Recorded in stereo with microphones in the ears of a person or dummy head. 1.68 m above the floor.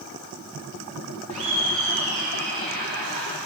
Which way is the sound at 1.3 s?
30° right (ahead or behind).